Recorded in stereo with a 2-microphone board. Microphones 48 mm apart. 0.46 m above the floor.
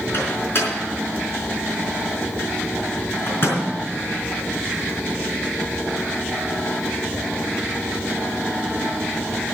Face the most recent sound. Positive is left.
turn(degrees=50)  # may be behind; listen again after turning